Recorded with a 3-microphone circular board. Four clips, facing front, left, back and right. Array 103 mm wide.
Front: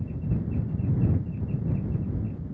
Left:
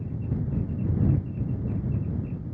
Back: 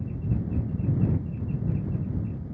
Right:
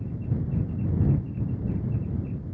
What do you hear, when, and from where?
Only background noise.